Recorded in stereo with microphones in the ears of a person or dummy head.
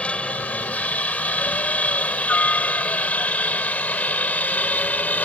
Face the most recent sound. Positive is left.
turn(degrees=10)  # may be behind; listen again after turning